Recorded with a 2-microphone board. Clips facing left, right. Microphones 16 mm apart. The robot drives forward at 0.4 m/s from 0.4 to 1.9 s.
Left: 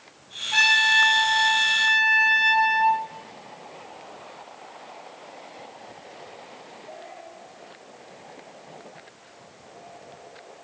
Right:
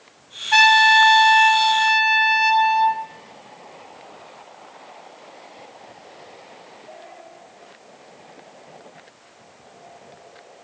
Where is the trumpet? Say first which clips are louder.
Right 5 dB; 80° right, 0.6 m; by 3.0 s 50° right (ahead or behind), 0.7 m.